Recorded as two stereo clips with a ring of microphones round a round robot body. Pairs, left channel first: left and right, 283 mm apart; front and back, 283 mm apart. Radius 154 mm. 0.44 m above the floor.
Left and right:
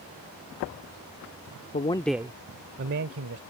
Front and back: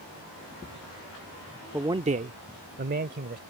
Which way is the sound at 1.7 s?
105° left.